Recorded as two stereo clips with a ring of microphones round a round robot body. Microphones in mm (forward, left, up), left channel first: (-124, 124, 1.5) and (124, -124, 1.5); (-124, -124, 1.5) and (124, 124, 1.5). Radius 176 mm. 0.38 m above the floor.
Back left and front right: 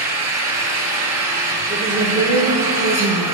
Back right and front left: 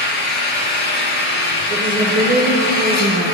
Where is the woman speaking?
15° left, 1.6 m.